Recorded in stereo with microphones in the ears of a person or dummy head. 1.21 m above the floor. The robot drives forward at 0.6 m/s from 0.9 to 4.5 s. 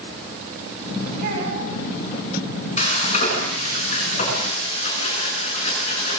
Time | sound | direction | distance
1.2 | a child speaking | 55° right (ahead or behind) | 8.5 m
2.8 | frying | 40° left (ahead or behind) | 9.5 m